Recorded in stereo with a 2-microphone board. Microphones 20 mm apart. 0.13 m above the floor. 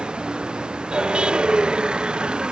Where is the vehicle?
50° right (ahead or behind).